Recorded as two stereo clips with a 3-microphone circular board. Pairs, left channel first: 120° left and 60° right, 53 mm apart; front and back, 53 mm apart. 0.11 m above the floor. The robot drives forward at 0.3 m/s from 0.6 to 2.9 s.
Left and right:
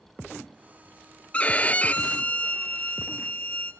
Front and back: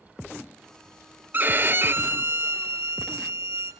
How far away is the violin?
About 0.7 m.